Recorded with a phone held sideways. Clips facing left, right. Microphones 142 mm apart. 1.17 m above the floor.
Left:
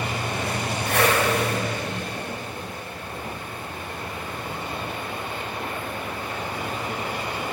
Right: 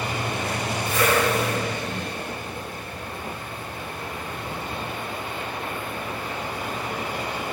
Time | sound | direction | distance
0.9 | a whoosh | 65° left (ahead or behind) | 9 m